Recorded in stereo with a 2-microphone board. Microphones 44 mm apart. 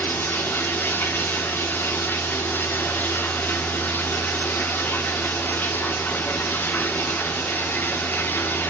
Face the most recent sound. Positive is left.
turn(degrees=50)  # may be behind; listen again after turning